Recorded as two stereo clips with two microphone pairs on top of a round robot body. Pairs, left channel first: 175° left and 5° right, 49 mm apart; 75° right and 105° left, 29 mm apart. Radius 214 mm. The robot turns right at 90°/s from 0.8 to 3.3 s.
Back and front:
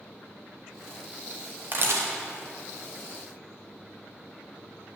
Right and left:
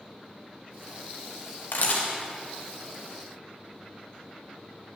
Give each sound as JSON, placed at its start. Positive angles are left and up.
{"t": 1.7, "sound": "a camera shutter", "azimuth_deg": -60, "distance_m": 0.7}